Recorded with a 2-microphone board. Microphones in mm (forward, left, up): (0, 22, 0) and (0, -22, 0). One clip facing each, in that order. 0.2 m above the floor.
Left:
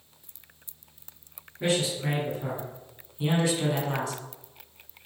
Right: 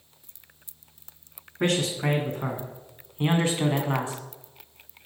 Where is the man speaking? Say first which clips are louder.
Right 2 dB; 55° right (ahead or behind), 1.9 m; by 4.2 s 20° right (ahead or behind), 1.5 m.